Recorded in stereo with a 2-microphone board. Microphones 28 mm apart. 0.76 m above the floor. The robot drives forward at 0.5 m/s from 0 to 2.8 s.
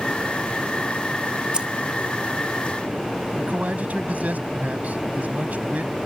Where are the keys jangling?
40° right (ahead or behind).